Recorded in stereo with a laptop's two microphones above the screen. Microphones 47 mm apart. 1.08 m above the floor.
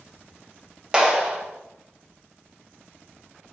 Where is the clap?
20° right (ahead or behind), 2 m.